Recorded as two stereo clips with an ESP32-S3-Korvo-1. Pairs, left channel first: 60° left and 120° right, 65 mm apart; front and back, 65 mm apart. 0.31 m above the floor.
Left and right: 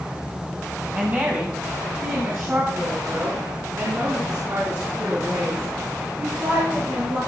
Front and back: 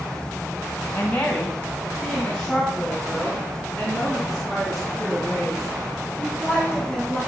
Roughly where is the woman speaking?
Ahead right.